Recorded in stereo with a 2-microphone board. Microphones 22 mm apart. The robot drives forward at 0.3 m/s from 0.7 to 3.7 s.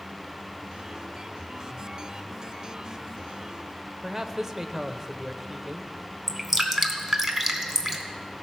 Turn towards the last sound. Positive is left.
turn(degrees=-10)  # may be behind; listen again after turning